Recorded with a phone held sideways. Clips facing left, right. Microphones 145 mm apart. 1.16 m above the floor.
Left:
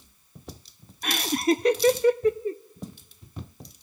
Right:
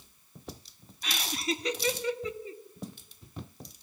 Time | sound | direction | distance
1.0 | laughter | 55° left (ahead or behind) | 0.6 m